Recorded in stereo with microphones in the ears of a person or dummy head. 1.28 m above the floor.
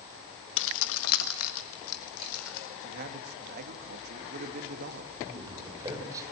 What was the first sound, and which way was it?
Keys jangling, 70° left (ahead or behind).